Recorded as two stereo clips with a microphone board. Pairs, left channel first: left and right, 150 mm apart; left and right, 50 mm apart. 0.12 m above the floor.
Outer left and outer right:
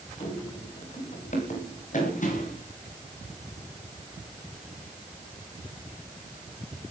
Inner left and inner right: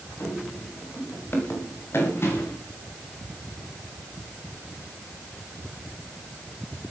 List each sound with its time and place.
0.2 s running footsteps: 50° left (ahead or behind), 9.5 m; by 2.6 s 60° left (ahead or behind), 11.5 m